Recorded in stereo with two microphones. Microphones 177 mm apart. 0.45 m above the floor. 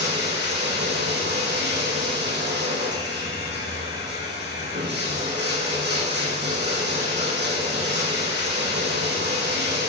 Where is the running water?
80° right, 7 m.